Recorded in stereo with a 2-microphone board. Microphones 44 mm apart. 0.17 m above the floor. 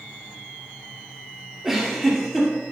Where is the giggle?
10° right (ahead or behind), 3 m.